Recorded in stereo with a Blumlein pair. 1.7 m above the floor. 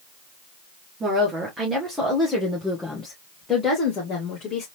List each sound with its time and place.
1.0 s a woman speaking: 20° right, 2.0 m; by 4.7 s 30° left, 2.5 m